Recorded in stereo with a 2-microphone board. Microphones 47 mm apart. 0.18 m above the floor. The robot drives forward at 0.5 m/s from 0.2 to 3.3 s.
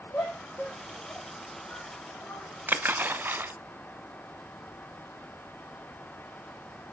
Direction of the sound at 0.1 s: 40° left (ahead or behind).